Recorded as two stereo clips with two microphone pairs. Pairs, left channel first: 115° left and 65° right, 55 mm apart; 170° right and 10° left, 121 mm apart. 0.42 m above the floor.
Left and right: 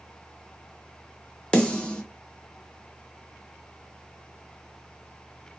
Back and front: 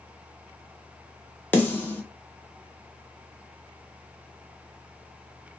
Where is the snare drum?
145° left, 0.7 m.